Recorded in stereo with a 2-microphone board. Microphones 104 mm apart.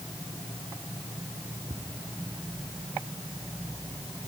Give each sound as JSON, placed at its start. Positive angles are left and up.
{"t": 1.7, "sound": "ticking", "side_deg": -65, "distance_m": 2.0}